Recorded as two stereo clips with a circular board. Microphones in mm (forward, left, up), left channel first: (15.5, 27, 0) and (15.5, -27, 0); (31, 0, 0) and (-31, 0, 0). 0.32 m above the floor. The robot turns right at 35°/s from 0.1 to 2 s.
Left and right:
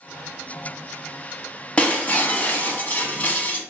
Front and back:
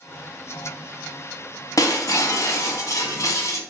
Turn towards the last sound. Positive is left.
turn(degrees=35)